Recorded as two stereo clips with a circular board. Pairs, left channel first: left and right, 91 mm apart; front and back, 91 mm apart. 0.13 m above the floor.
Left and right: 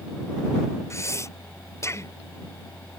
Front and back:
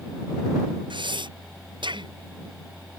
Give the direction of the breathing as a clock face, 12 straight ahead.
7 o'clock.